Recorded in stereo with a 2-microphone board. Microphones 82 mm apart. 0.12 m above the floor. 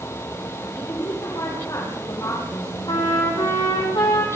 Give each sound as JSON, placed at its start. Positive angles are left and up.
{"t": 0.8, "sound": "a woman speaking", "side_deg": 40, "distance_m": 8.5}
{"t": 2.9, "sound": "a trumpet", "side_deg": 60, "distance_m": 5.5}